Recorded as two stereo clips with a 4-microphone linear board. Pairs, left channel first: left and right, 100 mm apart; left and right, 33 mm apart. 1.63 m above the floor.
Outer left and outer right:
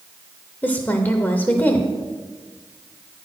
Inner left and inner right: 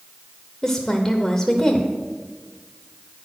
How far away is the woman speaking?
About 0.7 m.